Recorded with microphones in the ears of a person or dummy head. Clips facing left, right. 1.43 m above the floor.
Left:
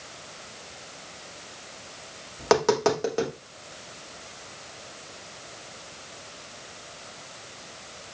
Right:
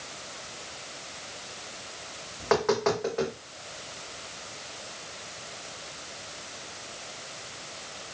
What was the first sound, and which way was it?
Tapping, 50° left (ahead or behind).